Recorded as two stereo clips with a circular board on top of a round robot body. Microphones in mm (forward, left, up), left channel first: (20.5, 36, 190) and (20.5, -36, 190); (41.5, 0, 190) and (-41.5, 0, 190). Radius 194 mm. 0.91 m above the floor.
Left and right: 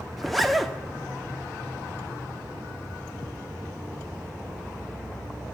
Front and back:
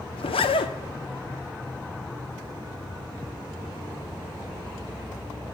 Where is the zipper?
Straight ahead, 1.1 m.